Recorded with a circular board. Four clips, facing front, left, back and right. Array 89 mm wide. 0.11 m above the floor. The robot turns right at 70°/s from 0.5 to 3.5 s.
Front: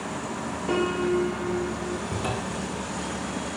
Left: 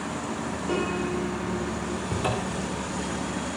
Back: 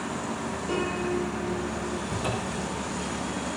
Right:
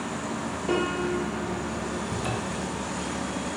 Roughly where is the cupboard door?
Ahead left.